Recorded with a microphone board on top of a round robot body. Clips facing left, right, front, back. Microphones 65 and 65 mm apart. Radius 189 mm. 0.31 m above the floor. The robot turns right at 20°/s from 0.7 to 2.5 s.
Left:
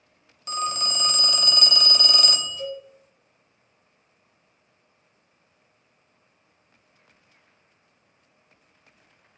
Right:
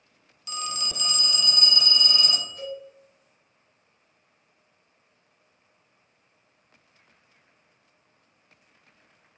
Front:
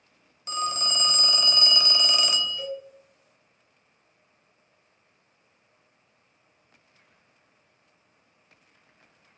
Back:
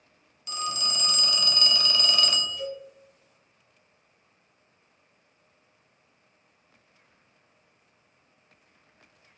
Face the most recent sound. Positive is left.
turn(degrees=-40)